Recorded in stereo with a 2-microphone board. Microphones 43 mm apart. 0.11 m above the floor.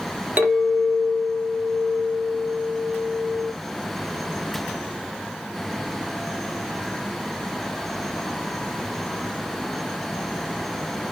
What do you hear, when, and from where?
0.4 s a clink: 40° right (ahead or behind), 1.1 m